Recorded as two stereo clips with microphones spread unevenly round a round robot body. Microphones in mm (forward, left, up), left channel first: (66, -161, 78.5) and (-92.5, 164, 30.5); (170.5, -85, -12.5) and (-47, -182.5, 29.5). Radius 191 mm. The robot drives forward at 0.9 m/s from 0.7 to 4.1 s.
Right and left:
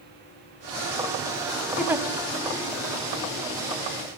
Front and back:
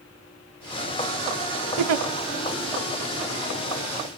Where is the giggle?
155° right, 0.6 m; by 2.0 s 160° right, 0.8 m.